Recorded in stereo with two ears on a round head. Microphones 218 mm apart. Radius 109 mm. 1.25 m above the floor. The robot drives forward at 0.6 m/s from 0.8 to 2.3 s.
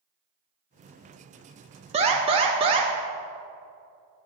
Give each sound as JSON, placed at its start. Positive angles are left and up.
{"t": 1.9, "sound": "an alarm", "side_deg": -25, "distance_m": 1.4}